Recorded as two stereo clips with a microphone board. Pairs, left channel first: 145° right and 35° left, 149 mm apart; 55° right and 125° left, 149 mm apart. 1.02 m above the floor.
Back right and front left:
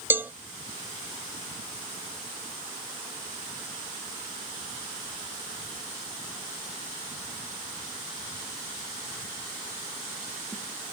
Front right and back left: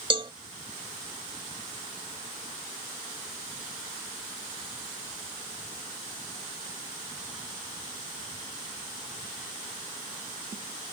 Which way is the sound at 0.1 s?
100° left.